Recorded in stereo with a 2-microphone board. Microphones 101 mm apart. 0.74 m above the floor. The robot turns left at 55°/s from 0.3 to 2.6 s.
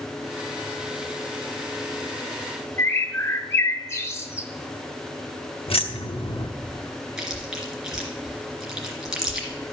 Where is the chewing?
5° right (ahead or behind), 2.5 m.